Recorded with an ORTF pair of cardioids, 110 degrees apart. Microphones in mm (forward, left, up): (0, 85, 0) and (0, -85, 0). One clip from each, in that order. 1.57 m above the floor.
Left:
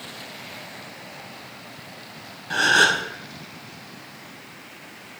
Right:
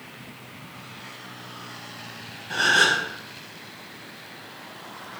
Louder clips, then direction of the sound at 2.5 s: Left 2 dB; 20° left.